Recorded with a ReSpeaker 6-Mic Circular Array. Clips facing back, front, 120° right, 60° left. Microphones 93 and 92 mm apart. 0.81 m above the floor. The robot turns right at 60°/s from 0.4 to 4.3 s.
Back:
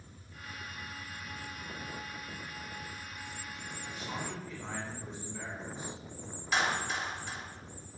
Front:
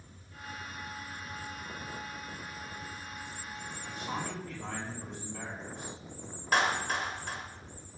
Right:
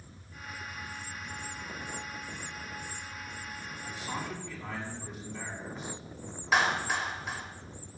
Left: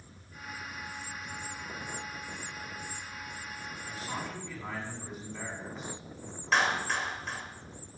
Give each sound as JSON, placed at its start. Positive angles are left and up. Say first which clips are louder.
{"t": 3.8, "sound": "a man speaking", "louder": "front 3 dB, right 1 dB", "azimuth_deg": -55, "distance_m": 7.5}
{"t": 6.5, "sound": "a clap", "louder": "front 3 dB, right 1 dB", "azimuth_deg": -35, "distance_m": 3.5}